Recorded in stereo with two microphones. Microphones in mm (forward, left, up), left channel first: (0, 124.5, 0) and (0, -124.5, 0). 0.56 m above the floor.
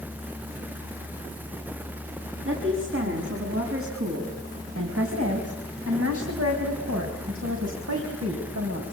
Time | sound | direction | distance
2.5 | a woman speaking | 55° right (ahead or behind) | 5.5 m